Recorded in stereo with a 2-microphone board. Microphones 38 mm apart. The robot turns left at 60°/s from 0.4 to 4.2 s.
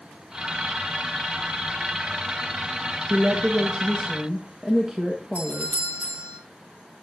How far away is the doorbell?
About 1.9 m.